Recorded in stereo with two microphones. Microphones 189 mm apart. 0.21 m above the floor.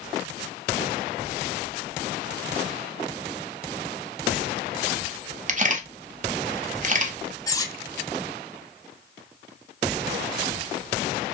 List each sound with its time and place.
5.5 s a camera shutter: 40° right (ahead or behind), 0.6 m
7.5 s cutlery clinking: 20° left (ahead or behind), 0.5 m